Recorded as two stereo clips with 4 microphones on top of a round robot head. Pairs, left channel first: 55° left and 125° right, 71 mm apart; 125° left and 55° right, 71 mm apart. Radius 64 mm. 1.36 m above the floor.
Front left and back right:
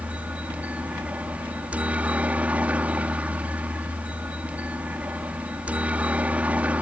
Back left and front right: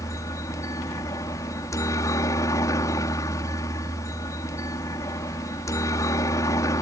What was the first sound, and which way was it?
A helicopter, 165° left.